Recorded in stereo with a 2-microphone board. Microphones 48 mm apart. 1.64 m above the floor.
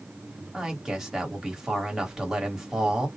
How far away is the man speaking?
About 1.3 m.